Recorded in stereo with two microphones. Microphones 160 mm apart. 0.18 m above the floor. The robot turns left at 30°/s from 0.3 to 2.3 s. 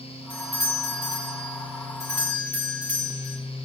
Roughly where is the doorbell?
Left.